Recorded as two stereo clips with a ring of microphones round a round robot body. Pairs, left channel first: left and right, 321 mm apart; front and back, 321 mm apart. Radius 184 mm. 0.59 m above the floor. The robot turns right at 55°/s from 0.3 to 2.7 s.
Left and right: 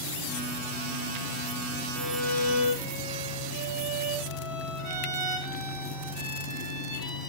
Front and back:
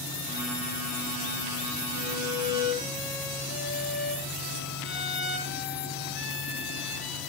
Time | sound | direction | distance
1.9 | a violin | 100° right | 7 m